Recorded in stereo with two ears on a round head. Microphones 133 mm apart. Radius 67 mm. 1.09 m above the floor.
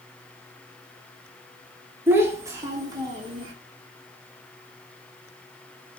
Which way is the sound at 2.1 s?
15° right (ahead or behind).